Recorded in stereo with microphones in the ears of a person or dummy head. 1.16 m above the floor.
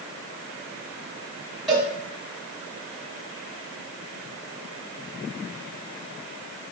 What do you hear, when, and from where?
1.7 s a cowbell: centre (ahead or behind), 1.5 m